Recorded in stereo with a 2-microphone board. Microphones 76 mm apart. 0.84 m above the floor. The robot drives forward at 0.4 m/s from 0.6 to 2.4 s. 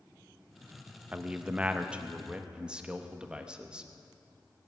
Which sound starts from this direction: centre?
A man speaking, at 1.1 s.